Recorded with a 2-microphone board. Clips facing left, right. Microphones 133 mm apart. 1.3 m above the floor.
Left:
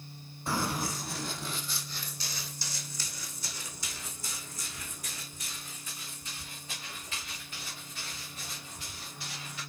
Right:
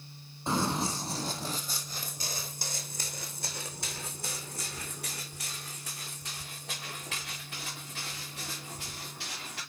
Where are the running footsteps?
20° right (ahead or behind), 1.8 m; by 9.6 s 75° right (ahead or behind), 6 m.